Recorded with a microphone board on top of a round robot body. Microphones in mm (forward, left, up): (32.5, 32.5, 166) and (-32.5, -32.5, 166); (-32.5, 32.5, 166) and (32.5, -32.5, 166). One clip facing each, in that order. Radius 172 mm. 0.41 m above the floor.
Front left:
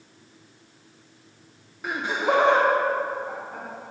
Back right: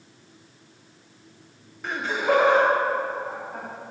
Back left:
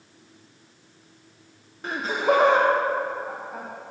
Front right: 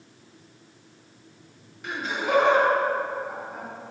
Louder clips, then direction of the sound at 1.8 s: Back right 1 dB, back left 5 dB; 125° left.